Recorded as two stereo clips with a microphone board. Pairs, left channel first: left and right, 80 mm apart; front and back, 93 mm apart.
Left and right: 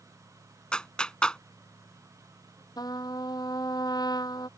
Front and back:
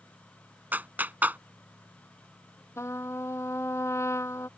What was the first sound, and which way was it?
A clap, 150° left.